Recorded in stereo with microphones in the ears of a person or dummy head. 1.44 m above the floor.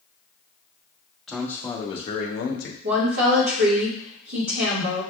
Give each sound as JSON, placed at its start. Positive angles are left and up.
{"t": 1.3, "sound": "a man speaking", "side_deg": 5, "distance_m": 1.1}
{"t": 2.8, "sound": "a woman speaking", "side_deg": -45, "distance_m": 2.0}